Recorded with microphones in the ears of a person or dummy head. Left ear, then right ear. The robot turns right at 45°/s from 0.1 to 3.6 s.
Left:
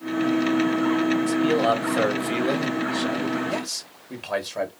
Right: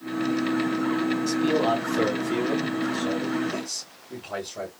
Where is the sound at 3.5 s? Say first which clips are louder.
Left 3 dB; 60° left (ahead or behind), 1.9 m; by 4.7 s 55° left (ahead or behind), 1.9 m.